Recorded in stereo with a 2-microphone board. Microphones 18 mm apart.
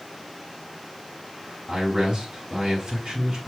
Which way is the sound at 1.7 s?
40° right (ahead or behind).